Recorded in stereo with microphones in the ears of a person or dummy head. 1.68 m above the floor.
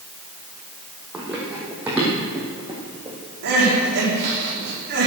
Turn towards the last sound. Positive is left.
turn(degrees=-65)  # may be behind; listen again after turning